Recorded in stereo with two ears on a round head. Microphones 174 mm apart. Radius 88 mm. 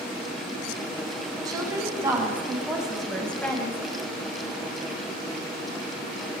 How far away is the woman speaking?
About 6 m.